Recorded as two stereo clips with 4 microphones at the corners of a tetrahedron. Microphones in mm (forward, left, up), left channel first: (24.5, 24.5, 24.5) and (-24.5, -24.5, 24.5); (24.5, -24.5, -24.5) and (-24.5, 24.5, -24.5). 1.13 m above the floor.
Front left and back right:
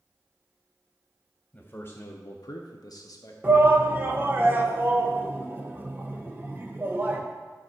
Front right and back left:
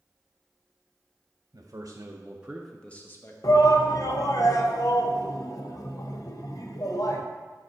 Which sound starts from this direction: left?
A man speaking, at 1.5 s.